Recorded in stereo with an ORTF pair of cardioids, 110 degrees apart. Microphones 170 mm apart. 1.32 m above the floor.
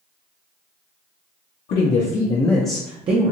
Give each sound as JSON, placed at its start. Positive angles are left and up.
{"t": 1.7, "sound": "a man speaking", "azimuth_deg": 65, "distance_m": 0.9}